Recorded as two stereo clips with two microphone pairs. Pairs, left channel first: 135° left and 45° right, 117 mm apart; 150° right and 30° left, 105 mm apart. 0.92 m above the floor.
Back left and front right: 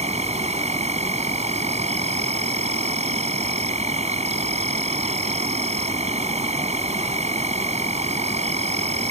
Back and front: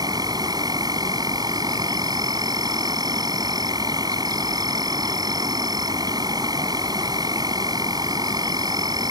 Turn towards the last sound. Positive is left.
turn(degrees=-20)